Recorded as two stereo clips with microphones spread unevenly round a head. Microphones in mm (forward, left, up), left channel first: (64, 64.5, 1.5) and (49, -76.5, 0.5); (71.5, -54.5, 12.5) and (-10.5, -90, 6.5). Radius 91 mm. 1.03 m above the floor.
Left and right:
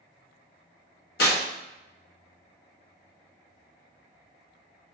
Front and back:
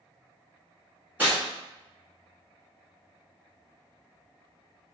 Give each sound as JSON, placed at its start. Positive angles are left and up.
{"t": 1.2, "sound": "tearing paper", "azimuth_deg": 120, "distance_m": 0.7}